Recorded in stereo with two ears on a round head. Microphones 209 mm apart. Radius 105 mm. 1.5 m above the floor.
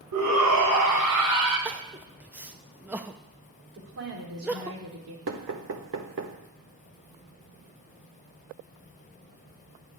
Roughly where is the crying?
Centre.